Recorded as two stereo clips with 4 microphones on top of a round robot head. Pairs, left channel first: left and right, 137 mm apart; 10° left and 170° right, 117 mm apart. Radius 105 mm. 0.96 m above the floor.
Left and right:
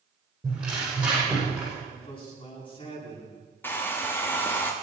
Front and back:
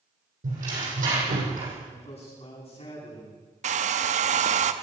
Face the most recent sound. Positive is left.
turn(degrees=170)